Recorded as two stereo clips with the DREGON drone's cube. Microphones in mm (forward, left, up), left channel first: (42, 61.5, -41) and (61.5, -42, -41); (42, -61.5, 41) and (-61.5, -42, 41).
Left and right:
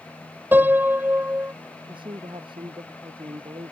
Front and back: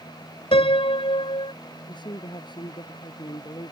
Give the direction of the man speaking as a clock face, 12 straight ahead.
2 o'clock.